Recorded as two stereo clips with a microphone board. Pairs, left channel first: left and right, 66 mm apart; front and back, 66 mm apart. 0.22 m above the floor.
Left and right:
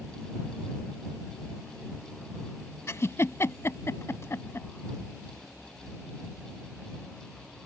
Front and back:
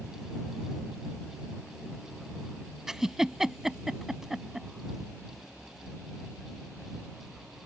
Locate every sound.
2.9 s a giggle: 100° left